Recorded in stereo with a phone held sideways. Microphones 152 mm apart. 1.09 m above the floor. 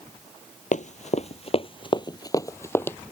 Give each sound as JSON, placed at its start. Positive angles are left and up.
{"t": 0.7, "sound": "running footsteps", "side_deg": 60}